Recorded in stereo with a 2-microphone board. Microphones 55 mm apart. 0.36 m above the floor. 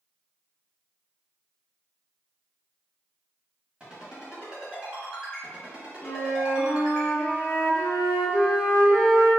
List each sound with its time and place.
3.8 s a ringtone: 20° right (ahead or behind), 1.4 m
6.0 s a flute: 25° left (ahead or behind), 0.6 m